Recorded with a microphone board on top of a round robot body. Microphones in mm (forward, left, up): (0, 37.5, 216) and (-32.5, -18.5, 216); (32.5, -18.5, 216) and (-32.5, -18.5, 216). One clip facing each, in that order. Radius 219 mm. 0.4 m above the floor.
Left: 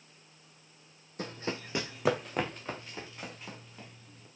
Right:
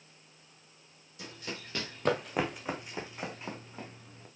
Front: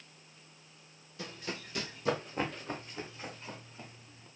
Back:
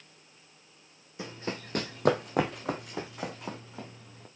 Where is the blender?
No blender in this recording.